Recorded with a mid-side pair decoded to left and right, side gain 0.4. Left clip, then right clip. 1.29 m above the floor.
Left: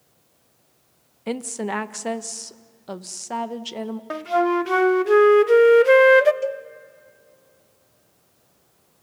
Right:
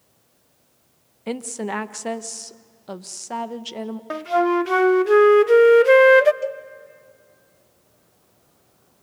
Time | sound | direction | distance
1.3 | a woman speaking | 5° left | 1.0 m
4.1 | a flute | 5° right | 0.6 m
6.4 | a cowbell | 15° left | 1.3 m